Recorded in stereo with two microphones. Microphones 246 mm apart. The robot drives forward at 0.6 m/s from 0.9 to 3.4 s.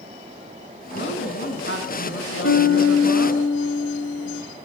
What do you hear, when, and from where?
0.9 s a woman speaking: 50° left (ahead or behind), 5 m; by 3.4 s 65° left (ahead or behind), 4 m
2.4 s a piano: 55° left (ahead or behind), 2.0 m; by 4.4 s 70° left (ahead or behind), 1.7 m